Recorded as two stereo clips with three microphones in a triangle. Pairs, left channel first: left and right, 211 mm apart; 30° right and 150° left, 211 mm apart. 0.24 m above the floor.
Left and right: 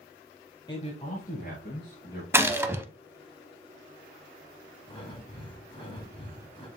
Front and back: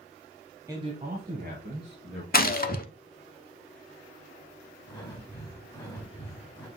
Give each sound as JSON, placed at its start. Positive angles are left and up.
{"t": 0.7, "sound": "a man speaking", "azimuth_deg": 105, "distance_m": 1.0}
{"t": 2.3, "sound": "a gunshot", "azimuth_deg": -15, "distance_m": 0.5}
{"t": 4.9, "sound": "breathing", "azimuth_deg": 35, "distance_m": 2.0}